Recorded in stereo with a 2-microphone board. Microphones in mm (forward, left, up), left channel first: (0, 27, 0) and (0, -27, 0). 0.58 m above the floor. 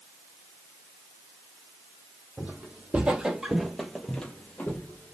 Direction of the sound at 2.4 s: 30° right (ahead or behind).